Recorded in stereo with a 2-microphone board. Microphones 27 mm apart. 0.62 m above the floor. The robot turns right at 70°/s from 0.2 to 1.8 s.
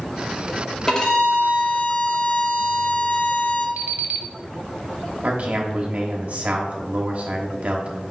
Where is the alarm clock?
75° right (ahead or behind), 0.6 m.